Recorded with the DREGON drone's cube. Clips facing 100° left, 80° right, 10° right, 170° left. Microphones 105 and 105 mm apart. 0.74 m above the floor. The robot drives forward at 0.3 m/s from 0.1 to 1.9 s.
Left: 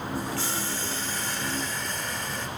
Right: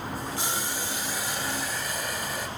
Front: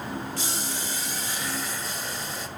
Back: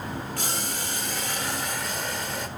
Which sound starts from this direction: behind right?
Boiling, at 0.4 s.